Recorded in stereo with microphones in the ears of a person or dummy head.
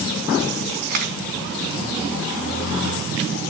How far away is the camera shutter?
About 2.5 m.